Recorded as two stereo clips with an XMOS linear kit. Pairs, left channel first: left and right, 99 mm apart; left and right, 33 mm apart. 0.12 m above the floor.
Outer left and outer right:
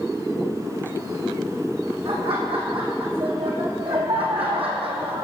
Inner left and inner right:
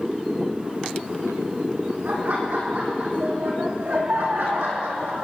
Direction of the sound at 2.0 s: 70° right (ahead or behind).